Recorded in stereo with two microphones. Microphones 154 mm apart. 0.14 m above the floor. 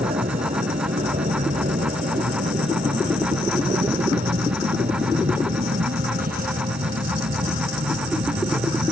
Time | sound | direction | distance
0.0 | an aircraft | 55° right (ahead or behind) | ?